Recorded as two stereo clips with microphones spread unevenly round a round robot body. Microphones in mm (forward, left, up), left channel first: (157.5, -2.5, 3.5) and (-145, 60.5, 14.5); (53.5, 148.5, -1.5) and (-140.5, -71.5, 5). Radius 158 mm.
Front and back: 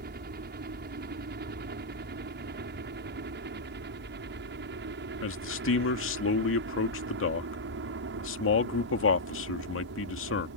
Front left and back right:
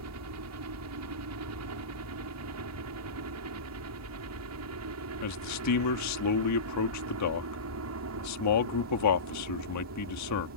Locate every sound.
0.0 s a helicopter: 135° right; by 10.6 s 150° right
5.2 s a man speaking: 30° left